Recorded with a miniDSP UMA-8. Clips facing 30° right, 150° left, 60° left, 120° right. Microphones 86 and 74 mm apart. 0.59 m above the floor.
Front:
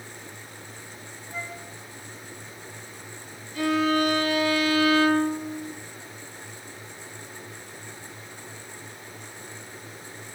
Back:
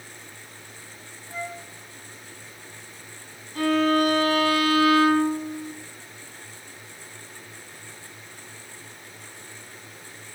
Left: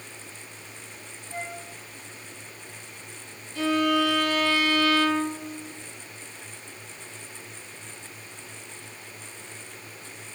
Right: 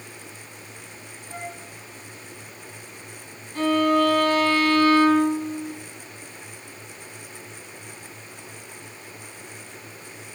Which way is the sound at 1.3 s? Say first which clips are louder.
Back 3 dB, even; straight behind.